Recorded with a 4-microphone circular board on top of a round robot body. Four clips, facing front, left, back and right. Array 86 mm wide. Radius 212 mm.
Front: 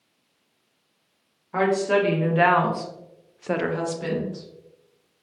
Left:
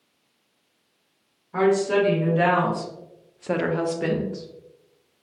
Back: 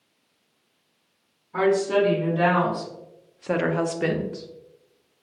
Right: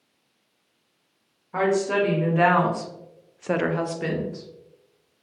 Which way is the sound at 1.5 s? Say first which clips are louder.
Left 2 dB, even; 25° right.